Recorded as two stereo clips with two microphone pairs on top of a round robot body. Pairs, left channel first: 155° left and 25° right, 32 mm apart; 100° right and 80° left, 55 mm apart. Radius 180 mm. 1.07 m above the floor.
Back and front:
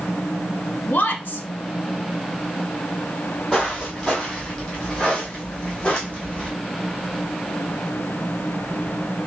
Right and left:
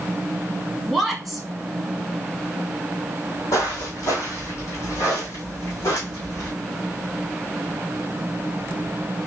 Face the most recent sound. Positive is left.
turn(degrees=-150)